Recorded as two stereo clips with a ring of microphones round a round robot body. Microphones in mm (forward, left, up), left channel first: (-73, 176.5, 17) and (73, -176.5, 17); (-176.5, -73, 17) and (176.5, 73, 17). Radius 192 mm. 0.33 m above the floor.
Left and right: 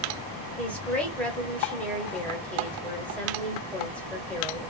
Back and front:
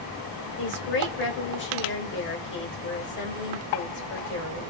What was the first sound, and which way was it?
A woman speaking, 165° right.